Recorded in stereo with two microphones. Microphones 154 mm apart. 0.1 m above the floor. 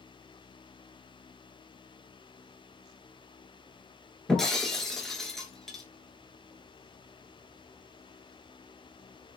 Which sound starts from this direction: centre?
Breaking glass, at 4.3 s.